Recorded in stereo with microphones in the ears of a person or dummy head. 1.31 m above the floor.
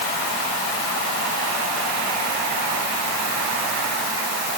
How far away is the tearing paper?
I don't hear tearing paper.